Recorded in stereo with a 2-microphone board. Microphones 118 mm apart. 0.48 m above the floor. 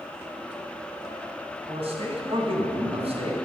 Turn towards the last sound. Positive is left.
turn(degrees=-65)  # may be behind; listen again after turning